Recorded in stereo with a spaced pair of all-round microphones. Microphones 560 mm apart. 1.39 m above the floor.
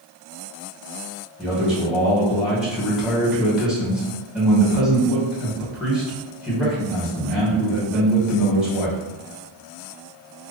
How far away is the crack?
No crack in this recording.